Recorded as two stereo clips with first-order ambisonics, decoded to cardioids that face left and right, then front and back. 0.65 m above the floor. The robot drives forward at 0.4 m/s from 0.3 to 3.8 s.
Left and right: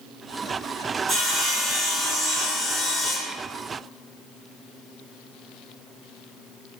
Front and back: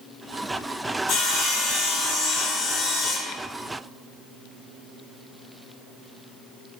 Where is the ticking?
No ticking in this recording.